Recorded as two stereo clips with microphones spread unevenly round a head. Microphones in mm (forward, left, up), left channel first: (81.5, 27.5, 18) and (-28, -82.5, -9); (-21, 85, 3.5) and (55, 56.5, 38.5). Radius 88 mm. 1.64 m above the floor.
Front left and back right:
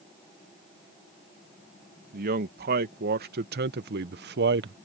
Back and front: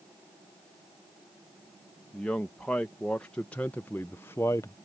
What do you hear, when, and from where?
2.1 s a man speaking: 110° right; by 4.8 s 125° right